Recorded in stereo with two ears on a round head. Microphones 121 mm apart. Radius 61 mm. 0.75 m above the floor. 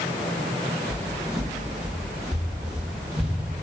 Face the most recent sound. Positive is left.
turn(degrees=-5)  # may be behind; listen again after turning